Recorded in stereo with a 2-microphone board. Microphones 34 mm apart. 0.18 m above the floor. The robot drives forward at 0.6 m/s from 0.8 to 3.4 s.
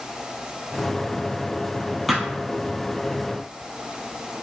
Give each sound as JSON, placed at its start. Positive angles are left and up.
{"t": 2.1, "sound": "a thud", "side_deg": -5, "distance_m": 1.5}